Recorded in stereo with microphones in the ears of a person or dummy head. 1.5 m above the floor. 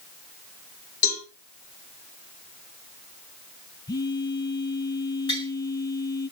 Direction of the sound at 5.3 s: 25° left (ahead or behind).